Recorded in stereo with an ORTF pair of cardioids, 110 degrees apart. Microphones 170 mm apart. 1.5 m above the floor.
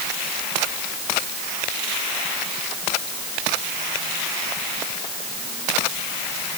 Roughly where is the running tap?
No running tap in this recording.